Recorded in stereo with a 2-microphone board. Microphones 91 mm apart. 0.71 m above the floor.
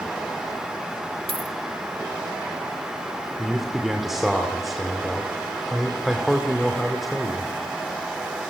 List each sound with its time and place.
1.3 s a dropped coin: 80° right, 1.5 m
3.4 s a man speaking: 5° right (ahead or behind), 2.5 m